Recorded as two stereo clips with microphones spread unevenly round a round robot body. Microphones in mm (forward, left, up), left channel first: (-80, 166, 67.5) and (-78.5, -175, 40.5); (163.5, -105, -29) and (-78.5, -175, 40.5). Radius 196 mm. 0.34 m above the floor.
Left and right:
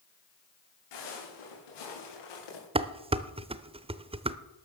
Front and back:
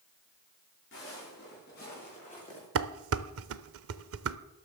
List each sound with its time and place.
0.9 s footsteps: 75° left, 7.5 m; by 2.6 s 95° left, 6 m
2.8 s dishes clattering: 150° right, 0.7 m